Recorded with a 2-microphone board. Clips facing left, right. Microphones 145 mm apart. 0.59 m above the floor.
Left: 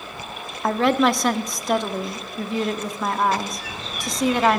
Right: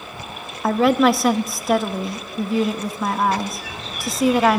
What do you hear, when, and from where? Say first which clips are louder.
0.6 s a woman speaking: right 3 dB; centre (ahead or behind), 0.7 m